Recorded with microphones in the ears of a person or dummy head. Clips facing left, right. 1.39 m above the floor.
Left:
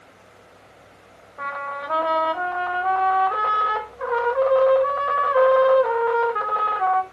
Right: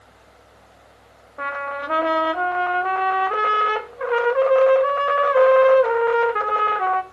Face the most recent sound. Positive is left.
turn(degrees=-40)  # may be behind; listen again after turning